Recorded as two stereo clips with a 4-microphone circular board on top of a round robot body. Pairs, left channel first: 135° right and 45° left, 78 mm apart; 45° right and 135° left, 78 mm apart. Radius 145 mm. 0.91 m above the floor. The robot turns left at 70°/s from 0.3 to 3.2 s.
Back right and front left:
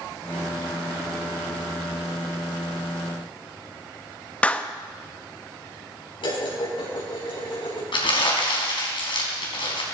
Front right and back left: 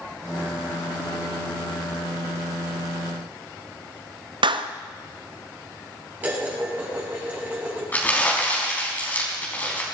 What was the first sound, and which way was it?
A clap, 150° left.